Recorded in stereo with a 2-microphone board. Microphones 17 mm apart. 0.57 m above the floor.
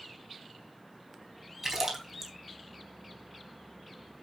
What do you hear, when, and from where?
1.6 s a splash: 25° right (ahead or behind), 3.5 m